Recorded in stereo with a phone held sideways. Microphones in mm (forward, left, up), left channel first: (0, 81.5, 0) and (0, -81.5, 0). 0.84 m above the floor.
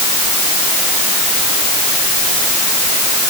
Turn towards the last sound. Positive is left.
No sound to turn to.